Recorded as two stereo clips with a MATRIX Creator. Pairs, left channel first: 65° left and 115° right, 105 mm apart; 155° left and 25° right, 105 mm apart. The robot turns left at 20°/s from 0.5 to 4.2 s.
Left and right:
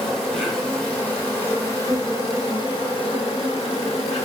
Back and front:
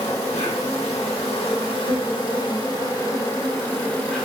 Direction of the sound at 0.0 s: 150° left.